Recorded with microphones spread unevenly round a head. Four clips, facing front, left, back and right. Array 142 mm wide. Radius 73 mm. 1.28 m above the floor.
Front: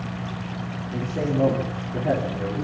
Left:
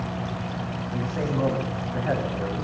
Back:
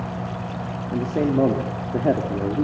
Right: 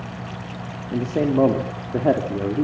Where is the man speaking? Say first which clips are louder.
Right 9 dB, back 5 dB; 120° right, 3.5 m.